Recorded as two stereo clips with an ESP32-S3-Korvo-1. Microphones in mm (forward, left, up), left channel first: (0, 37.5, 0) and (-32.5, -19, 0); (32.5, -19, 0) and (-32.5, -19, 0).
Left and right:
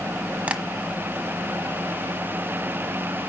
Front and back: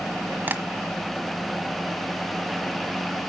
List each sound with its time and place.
0.5 s tapping: 165° right, 1.3 m